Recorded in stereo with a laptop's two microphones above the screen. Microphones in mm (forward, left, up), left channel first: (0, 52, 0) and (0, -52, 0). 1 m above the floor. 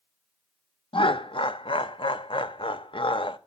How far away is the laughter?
About 0.8 m.